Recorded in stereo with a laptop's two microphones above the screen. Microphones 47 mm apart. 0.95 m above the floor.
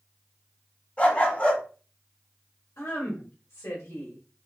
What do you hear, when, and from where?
1.0 s a dog barking: 20° left (ahead or behind), 1.6 m
2.8 s a woman speaking: 65° left (ahead or behind), 1.4 m